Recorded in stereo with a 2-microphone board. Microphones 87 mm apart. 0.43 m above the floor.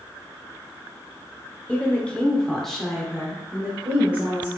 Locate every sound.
1.7 s a woman speaking: 15° left (ahead or behind), 1.0 m; by 4.5 s 15° right (ahead or behind), 1.5 m